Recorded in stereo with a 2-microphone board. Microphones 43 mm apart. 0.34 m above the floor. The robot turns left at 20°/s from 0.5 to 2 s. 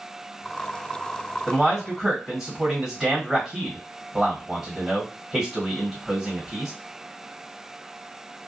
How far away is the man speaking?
About 1.7 m.